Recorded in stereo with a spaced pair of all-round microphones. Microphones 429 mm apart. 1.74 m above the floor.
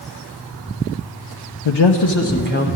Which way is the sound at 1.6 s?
80° left.